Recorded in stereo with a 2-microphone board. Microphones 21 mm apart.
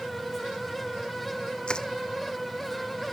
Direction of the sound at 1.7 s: 45° left (ahead or behind).